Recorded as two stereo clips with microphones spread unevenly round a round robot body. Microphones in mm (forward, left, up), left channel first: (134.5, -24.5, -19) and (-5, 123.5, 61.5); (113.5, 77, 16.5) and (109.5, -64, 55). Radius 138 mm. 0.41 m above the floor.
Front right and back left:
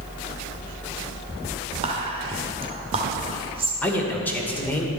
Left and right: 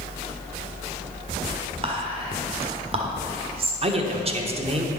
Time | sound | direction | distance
1.8 | whispering | 145° right | 1.0 m
3.8 | a man speaking | 60° right | 1.1 m